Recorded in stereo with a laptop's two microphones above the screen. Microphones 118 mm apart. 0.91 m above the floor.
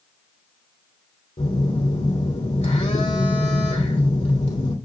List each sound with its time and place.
1.4 s a phone buzzing: 70° left (ahead or behind), 2.5 m